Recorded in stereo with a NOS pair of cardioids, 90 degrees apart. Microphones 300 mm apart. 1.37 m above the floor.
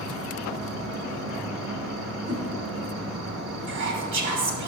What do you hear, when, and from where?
0.0 s an insect: 60° right, 3.5 m
2.3 s a whoosh: 50° right, 2.5 m
3.7 s whispering: 70° right, 3 m